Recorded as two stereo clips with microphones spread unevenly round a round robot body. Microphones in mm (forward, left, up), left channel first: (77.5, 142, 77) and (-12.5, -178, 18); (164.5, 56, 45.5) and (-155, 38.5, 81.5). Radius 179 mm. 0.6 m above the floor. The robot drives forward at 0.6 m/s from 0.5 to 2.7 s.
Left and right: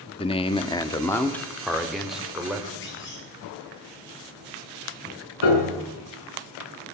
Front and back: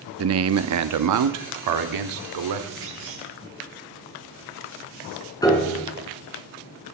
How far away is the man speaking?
About 0.9 m.